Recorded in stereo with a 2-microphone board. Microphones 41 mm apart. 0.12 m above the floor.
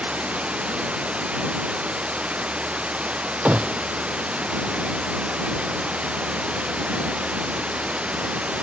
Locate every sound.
0.0 s running water: 30° right (ahead or behind)
3.5 s a gunshot: 35° right (ahead or behind)